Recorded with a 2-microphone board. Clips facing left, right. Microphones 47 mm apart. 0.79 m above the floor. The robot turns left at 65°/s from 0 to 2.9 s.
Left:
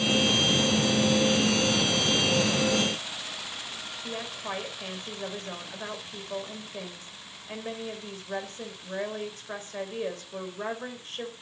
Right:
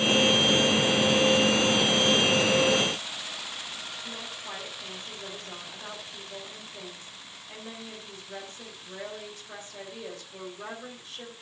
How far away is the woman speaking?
About 3.5 m.